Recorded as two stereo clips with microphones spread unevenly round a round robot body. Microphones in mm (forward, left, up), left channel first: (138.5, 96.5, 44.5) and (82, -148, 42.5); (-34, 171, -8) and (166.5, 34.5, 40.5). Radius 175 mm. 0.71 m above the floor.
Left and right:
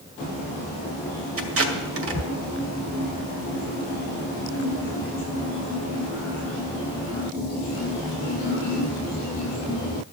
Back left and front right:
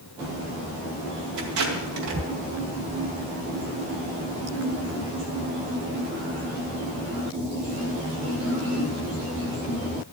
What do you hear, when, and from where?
1.4 s tape being pulled: 70° right, 2 m